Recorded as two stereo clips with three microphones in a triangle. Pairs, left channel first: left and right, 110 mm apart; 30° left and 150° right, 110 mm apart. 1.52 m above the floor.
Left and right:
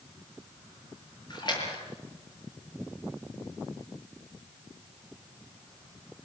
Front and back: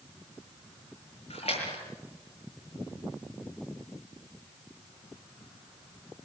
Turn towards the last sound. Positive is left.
turn(degrees=45)